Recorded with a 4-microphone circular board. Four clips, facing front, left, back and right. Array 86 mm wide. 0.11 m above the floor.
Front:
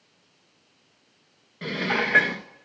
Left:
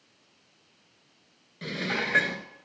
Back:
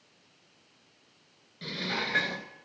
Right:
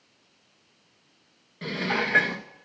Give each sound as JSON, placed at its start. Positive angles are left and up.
{"t": 1.6, "sound": "dishes clattering", "azimuth_deg": -15, "distance_m": 1.1}